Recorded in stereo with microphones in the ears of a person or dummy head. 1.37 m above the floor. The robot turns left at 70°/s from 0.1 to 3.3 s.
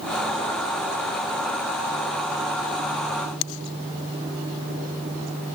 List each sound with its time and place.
Only background noise.